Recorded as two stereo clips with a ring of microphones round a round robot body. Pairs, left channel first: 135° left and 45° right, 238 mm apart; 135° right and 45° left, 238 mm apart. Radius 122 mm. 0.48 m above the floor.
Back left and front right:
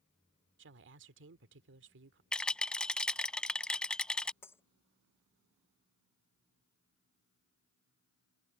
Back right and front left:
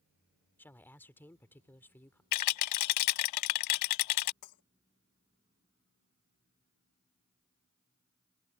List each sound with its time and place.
0.6 s a woman speaking: 55° right
2.3 s a rattle: 140° right
4.4 s breaking glass: 145° right